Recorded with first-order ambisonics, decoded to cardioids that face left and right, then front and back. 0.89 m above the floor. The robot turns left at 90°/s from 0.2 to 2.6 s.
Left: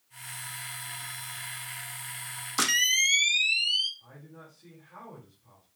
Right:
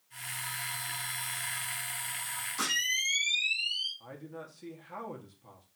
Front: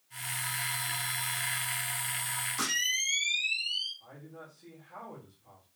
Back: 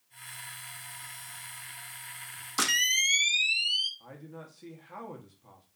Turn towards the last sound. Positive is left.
turn(degrees=-130)